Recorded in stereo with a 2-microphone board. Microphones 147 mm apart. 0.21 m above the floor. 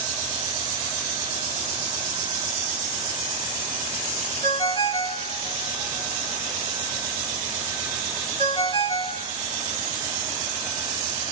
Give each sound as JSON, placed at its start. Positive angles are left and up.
{"t": 4.4, "sound": "a ringtone", "side_deg": 40, "distance_m": 3.0}